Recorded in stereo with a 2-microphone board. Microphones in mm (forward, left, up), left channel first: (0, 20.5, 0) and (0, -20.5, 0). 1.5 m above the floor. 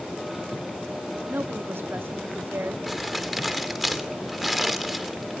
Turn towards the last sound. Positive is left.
turn(degrees=0)  # may be behind; listen again after turning